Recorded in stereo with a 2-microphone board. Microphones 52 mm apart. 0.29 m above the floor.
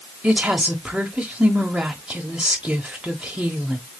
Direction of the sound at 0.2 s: 15° right (ahead or behind).